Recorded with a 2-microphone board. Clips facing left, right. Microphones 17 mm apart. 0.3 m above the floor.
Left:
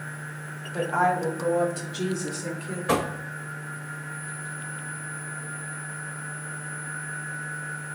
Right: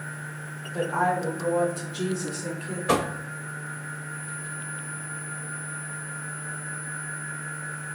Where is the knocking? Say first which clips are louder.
Right 1 dB; 15° right (ahead or behind), 0.6 m.